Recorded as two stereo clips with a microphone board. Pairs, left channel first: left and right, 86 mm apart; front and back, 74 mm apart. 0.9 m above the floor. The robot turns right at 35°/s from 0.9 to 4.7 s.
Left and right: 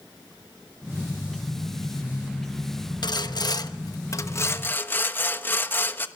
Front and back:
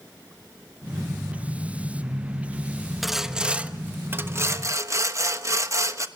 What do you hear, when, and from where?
3.0 s sawing: 90° left, 1.1 m; by 6.1 s 150° left, 1.1 m